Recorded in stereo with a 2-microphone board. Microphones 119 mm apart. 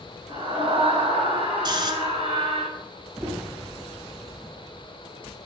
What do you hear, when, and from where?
0.3 s a scream: 45° right (ahead or behind), 2.5 m; by 2.6 s 55° right (ahead or behind), 2.5 m
1.6 s snoring: 40° right (ahead or behind), 1.0 m
3.2 s knocking: 25° right (ahead or behind), 2 m